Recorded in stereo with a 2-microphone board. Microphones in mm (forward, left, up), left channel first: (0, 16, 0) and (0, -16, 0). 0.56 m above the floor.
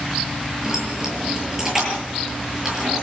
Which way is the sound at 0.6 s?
10° right (ahead or behind).